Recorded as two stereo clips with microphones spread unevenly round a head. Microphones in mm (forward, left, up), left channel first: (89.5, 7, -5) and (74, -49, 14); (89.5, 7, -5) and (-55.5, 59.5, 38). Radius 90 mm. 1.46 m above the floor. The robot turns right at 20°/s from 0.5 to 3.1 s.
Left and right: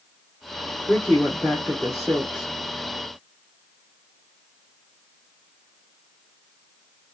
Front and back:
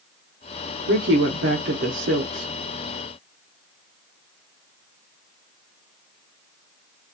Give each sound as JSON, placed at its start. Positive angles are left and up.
{"t": 0.9, "sound": "a woman speaking", "azimuth_deg": 145, "distance_m": 0.7}